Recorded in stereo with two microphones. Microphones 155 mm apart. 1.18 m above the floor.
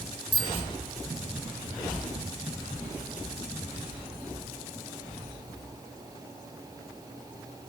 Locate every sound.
0.3 s a bicycle bell: 50° left (ahead or behind), 4.5 m